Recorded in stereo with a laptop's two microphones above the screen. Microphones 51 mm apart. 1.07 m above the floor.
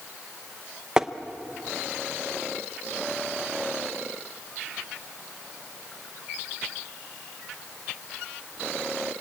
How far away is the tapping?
About 0.7 m.